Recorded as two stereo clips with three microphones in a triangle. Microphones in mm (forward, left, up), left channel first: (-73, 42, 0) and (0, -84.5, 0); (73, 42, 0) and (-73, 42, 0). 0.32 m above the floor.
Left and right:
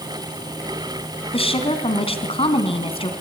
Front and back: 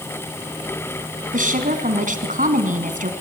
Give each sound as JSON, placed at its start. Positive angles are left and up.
{"t": 1.3, "sound": "a woman speaking", "azimuth_deg": 165, "distance_m": 3.5}